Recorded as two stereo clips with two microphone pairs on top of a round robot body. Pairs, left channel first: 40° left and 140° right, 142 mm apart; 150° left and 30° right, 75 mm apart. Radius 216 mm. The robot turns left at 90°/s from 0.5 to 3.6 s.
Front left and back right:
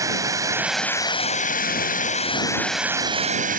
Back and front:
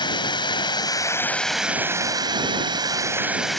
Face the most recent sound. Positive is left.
turn(degrees=-125)